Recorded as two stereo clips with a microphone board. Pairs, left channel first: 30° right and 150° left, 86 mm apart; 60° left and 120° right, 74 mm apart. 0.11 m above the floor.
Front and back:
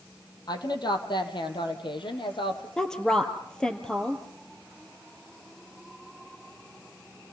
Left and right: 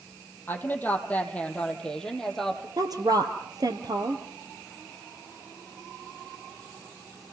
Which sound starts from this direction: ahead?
A woman speaking, at 0.5 s.